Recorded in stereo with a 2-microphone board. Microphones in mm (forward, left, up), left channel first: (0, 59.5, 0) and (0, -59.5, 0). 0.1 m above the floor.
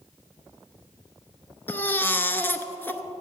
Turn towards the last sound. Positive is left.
turn(degrees=15)  # may be behind; listen again after turning